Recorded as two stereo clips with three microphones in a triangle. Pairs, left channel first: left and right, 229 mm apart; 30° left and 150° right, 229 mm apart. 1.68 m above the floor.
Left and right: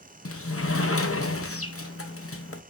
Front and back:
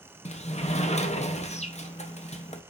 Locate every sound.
0.2 s a sliding door: 90° left, 1.0 m